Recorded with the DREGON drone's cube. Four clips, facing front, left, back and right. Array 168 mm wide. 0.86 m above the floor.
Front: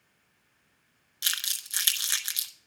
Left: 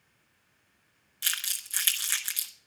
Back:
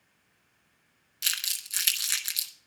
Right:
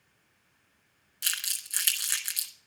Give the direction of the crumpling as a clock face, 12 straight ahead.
11 o'clock.